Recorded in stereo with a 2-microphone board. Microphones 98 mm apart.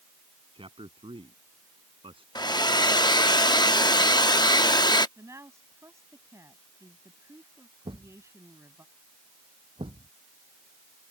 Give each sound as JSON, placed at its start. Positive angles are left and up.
{"t": 0.5, "sound": "a man speaking", "side_deg": -65}
{"t": 2.4, "sound": "a hair dryer", "side_deg": 45}
{"t": 5.2, "sound": "a woman speaking", "side_deg": -30}
{"t": 7.8, "sound": "a thud", "side_deg": -60}